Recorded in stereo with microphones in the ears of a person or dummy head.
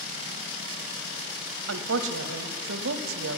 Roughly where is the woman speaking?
Right.